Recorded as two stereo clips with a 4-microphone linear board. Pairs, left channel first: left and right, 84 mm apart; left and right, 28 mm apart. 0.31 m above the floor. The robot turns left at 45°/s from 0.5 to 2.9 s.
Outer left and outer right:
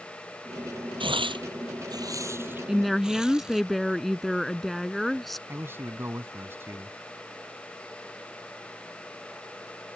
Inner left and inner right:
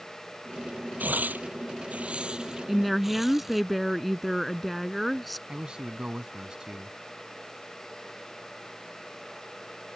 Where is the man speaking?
25° right (ahead or behind).